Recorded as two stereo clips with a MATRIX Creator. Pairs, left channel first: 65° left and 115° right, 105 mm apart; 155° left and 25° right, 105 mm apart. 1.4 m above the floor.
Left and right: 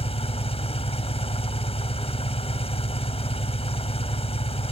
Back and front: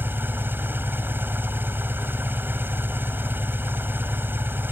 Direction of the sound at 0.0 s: 50° left.